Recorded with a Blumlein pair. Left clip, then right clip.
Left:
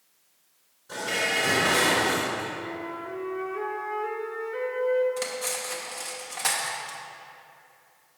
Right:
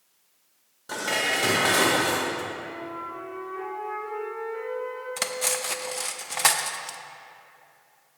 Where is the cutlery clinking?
25° right, 0.5 m.